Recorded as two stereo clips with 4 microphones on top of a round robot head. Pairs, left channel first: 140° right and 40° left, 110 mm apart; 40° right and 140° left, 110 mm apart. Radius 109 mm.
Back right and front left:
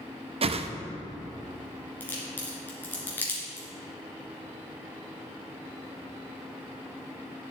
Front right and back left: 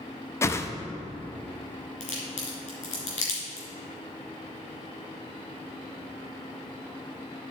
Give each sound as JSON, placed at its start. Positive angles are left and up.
{"t": 0.4, "sound": "a whoosh", "azimuth_deg": 20, "distance_m": 0.6}
{"t": 2.0, "sound": "a crack", "azimuth_deg": -65, "distance_m": 2.5}